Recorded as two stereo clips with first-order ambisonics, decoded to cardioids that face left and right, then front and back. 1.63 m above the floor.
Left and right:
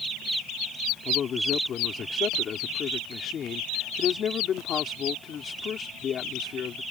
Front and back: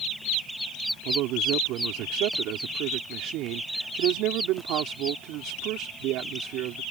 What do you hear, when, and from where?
1.1 s a man speaking: 145° left